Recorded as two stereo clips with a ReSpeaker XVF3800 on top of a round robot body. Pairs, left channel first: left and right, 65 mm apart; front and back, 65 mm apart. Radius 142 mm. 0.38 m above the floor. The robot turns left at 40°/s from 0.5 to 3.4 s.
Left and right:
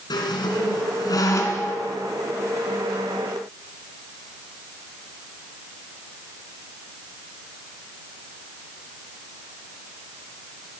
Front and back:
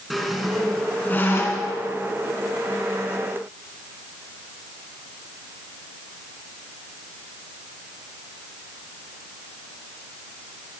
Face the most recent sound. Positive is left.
turn(degrees=-25)